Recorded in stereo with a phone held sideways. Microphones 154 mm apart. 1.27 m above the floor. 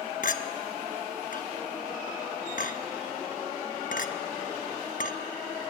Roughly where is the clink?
Left.